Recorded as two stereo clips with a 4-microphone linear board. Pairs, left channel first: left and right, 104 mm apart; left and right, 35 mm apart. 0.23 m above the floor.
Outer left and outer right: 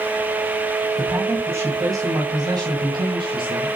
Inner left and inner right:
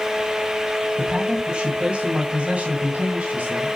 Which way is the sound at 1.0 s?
20° right (ahead or behind).